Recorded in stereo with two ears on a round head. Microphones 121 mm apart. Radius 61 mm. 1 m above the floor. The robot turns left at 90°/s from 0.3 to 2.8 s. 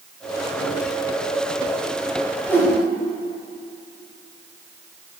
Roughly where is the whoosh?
Centre.